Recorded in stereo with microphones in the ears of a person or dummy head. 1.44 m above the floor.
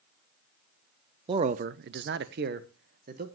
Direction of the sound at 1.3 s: 30° right (ahead or behind).